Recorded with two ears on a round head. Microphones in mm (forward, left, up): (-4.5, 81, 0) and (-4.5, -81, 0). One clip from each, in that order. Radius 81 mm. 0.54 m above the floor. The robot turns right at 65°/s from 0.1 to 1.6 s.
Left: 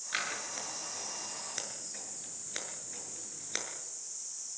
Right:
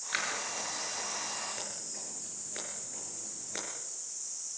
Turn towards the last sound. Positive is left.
turn(degrees=85)